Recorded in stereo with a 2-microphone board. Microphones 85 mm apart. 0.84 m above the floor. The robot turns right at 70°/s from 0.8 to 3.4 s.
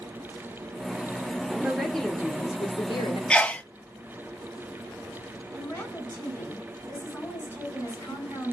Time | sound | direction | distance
1.6 | a woman speaking | 15° right | 2.5 m
3.3 | a sneeze | 10° left (ahead or behind) | 0.6 m
5.5 | a woman speaking | 35° left (ahead or behind) | 8.5 m